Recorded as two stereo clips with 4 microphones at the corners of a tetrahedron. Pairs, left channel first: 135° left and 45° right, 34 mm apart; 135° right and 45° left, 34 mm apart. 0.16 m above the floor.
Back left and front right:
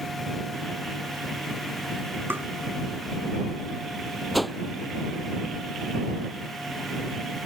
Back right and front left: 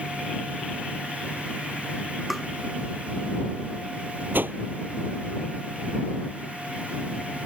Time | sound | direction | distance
2.3 | tapping | 40° right | ?
4.3 | a whoosh | 45° left | ?